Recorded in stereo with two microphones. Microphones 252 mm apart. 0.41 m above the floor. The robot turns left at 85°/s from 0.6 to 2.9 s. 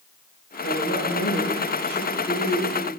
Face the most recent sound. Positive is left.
turn(degrees=-60)